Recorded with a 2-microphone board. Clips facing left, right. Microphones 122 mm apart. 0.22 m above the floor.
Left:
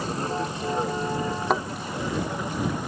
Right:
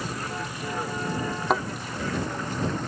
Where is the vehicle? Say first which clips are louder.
Left 5 dB; 30° left (ahead or behind); by 2.9 s 10° left (ahead or behind).